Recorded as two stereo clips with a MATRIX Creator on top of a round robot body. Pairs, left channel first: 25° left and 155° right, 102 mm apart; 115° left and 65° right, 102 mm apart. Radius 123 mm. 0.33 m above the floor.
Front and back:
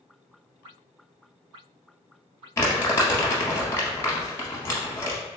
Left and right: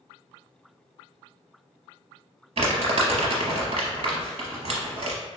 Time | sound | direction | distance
2.6 | crumpling | 45° right | 0.8 m